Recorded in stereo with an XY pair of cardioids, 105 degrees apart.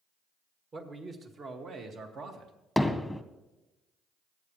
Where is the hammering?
5° left, 1.0 m.